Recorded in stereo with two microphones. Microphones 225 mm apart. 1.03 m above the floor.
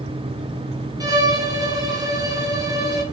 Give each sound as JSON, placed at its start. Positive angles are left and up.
{"t": 1.0, "sound": "a violin", "side_deg": -15, "distance_m": 0.9}